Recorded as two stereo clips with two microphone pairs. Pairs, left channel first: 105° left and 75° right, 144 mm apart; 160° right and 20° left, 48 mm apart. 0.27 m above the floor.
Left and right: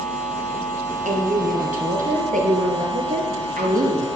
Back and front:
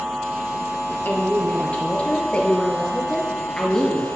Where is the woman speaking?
105° right, 4.5 m; by 4.1 s 80° right, 4.5 m.